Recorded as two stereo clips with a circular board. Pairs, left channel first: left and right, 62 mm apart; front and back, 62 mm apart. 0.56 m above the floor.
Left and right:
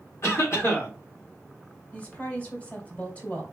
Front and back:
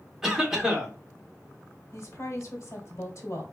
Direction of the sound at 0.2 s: 100° left.